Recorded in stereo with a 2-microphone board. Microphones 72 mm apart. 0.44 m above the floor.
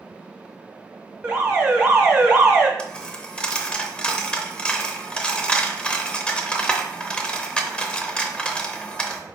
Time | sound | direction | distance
1.2 | an alarm | 15° right (ahead or behind) | 0.9 m
2.8 | a dropped coin | 15° left (ahead or behind) | 0.5 m